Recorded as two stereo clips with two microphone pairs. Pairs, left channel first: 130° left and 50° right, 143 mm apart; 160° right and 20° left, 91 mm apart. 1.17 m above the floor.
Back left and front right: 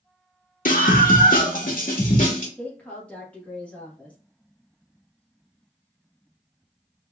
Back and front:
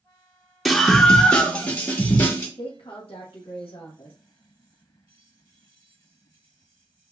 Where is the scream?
120° left, 0.8 m; by 2.5 s 165° left, 1.4 m.